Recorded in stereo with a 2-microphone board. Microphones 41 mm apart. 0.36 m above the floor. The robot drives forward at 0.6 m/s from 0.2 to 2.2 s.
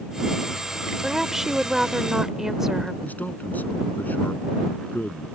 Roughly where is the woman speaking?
Centre.